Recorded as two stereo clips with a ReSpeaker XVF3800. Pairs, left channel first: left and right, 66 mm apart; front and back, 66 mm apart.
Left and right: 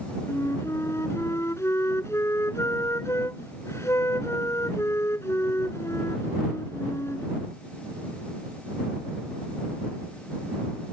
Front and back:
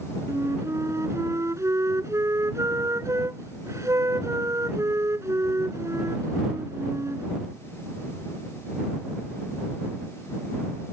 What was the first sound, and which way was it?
A flute, 135° left.